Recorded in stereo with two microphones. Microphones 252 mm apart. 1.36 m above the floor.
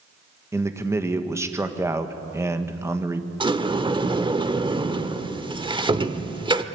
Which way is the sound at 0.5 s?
10° right (ahead or behind).